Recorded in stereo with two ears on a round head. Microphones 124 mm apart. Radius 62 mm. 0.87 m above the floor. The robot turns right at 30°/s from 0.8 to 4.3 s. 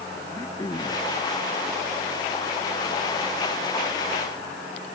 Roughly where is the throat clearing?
Left.